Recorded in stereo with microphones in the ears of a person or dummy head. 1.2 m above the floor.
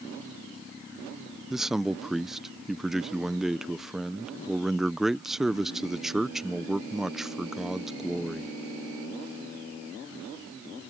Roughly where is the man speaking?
Centre.